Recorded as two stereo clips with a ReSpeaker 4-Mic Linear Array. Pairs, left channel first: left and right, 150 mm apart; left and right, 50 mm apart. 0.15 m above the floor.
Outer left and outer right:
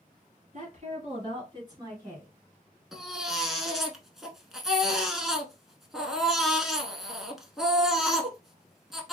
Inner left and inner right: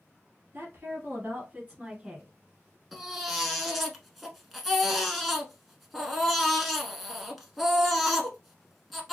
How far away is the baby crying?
About 0.8 m.